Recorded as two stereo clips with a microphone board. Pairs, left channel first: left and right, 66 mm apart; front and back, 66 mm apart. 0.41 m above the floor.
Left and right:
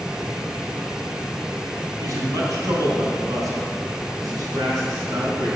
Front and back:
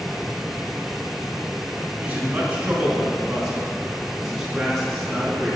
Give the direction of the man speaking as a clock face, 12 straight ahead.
4 o'clock.